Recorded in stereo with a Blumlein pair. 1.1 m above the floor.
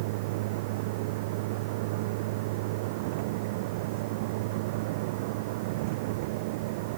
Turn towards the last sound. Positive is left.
turn(degrees=-50)